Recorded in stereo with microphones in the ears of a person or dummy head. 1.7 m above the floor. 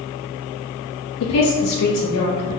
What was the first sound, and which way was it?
A woman speaking, 80° left.